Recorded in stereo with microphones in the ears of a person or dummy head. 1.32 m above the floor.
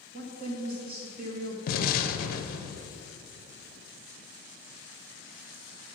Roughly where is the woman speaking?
Right.